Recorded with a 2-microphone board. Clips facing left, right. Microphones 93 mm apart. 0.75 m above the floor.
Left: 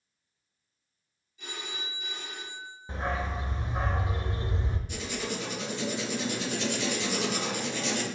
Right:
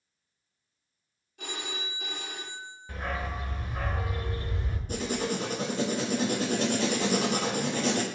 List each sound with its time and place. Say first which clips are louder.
1.4 s a phone ringing: right 3 dB; 65° right (ahead or behind), 1.1 m
2.9 s a dog barking: left 2 dB; 25° left (ahead or behind), 0.6 m
4.9 s writing: right 7 dB; 45° right (ahead or behind), 0.9 m